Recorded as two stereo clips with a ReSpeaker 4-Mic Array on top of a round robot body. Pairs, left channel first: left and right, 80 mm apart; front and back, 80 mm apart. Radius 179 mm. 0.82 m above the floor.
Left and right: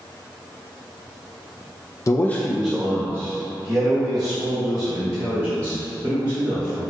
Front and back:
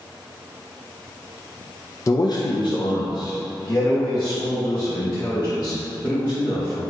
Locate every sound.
2.1 s a man speaking: 45° left, 0.5 m; by 6.8 s 55° right, 3 m